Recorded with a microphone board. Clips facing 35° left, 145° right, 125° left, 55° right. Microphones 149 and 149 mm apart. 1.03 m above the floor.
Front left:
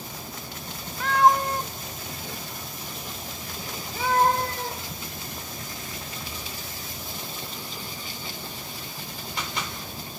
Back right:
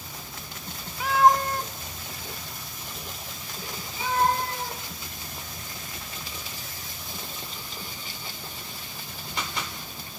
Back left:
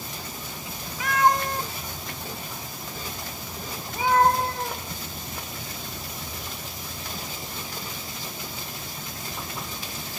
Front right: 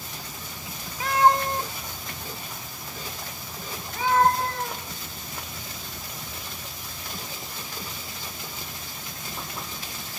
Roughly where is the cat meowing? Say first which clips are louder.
Even, front right 2 dB; right.